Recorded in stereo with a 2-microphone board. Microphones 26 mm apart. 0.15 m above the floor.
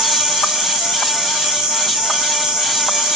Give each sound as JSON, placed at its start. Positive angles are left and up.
{"t": 0.0, "sound": "an insect", "side_deg": -25, "distance_m": 1.0}